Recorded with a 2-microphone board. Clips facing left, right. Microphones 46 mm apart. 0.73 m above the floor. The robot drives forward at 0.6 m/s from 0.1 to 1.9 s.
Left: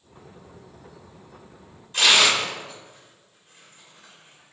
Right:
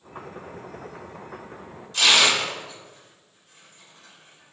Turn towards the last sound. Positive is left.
turn(degrees=30)  # may be behind; listen again after turning